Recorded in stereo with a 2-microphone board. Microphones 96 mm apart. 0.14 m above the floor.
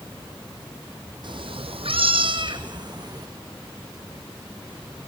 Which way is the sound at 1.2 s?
55° right (ahead or behind).